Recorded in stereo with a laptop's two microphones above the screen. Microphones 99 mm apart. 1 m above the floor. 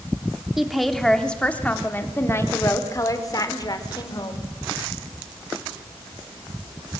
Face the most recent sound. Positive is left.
turn(degrees=45)  # may be behind; listen again after turning